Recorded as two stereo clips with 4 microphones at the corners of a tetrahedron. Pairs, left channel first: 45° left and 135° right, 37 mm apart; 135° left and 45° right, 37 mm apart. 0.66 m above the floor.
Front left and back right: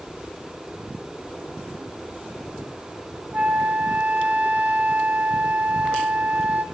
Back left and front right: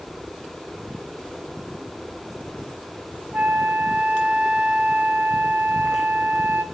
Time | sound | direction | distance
3.3 | a flute | 90° right | 2 m